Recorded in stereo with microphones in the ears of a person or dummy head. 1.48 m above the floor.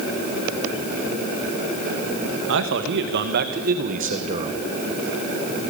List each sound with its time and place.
2.5 s a man speaking: 65° right (ahead or behind), 2.5 m; by 4.6 s 25° right (ahead or behind), 1.7 m